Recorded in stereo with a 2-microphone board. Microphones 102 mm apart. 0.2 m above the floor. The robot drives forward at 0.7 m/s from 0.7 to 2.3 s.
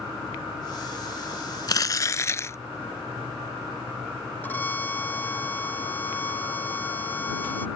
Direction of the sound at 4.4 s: 20° left (ahead or behind).